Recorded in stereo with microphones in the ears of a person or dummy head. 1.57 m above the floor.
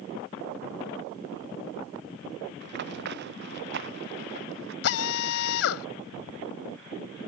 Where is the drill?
70° left (ahead or behind).